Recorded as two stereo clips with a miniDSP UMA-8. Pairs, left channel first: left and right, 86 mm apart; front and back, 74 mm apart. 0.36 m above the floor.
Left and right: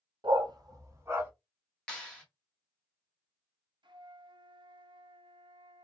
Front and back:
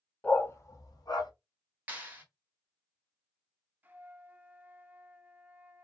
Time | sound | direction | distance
0.2 | a dog barking | 75° right | 0.7 m
1.9 | a clap | 155° left | 1.0 m
3.8 | a flute | 115° right | 0.5 m